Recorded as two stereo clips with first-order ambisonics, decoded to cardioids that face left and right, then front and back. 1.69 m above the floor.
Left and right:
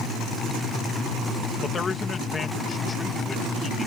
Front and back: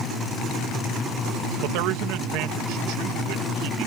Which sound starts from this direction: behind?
A man speaking, at 1.6 s.